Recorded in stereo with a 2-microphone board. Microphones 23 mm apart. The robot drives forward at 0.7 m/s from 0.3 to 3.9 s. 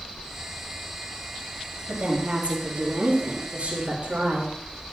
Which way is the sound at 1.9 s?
70° right (ahead or behind).